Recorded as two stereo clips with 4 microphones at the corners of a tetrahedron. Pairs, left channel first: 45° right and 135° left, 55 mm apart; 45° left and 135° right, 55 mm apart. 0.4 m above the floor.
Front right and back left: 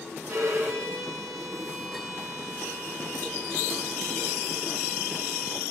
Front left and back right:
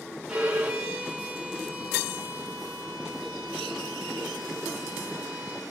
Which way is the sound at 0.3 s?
150° left.